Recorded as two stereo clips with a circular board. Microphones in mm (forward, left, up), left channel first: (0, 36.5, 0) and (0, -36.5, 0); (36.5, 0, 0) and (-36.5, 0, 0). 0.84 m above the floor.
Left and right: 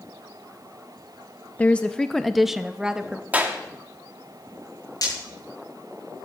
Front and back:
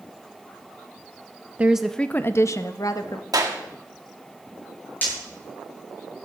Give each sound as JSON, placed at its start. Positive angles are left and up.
{"t": 1.6, "sound": "a woman speaking", "azimuth_deg": 135, "distance_m": 0.6}
{"t": 3.3, "sound": "a clap", "azimuth_deg": -155, "distance_m": 1.5}
{"t": 5.0, "sound": "breaking glass", "azimuth_deg": 65, "distance_m": 9.5}